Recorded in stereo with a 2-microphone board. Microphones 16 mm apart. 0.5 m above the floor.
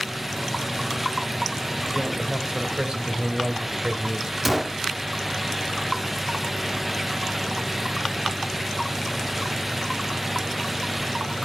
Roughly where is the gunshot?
Centre.